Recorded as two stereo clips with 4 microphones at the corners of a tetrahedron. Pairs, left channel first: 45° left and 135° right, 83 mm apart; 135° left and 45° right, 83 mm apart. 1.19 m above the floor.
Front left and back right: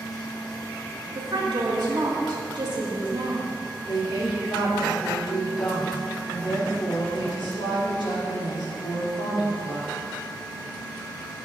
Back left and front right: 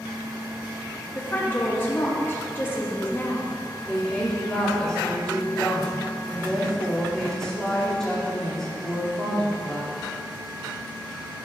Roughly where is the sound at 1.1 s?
Behind.